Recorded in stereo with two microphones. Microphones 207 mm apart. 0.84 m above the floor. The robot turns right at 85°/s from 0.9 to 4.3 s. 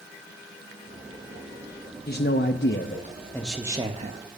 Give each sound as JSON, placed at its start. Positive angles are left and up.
{"t": 2.1, "sound": "a man speaking", "azimuth_deg": 55, "distance_m": 0.7}